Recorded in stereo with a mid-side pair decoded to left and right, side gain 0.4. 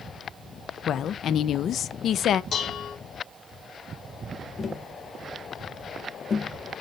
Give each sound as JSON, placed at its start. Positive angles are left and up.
{"t": 0.9, "sound": "a woman speaking", "azimuth_deg": 70, "distance_m": 0.7}
{"t": 2.5, "sound": "dishes clattering", "azimuth_deg": 70, "distance_m": 2.5}
{"t": 4.6, "sound": "tapping", "azimuth_deg": 45, "distance_m": 1.2}